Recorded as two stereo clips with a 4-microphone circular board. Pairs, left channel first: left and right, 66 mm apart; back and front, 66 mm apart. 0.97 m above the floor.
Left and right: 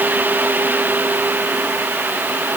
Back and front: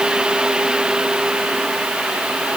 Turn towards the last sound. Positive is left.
No sound to turn to.